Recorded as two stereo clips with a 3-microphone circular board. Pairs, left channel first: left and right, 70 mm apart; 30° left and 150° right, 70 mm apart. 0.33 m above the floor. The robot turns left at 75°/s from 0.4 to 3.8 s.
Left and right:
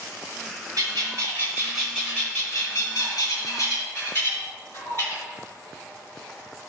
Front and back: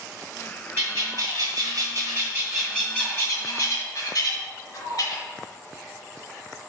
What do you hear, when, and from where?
0.8 s a bird: 100° right, 3 m; by 5.2 s 30° left, 3 m